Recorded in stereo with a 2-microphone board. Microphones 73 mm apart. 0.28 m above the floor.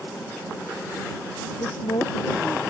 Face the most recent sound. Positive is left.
turn(degrees=80)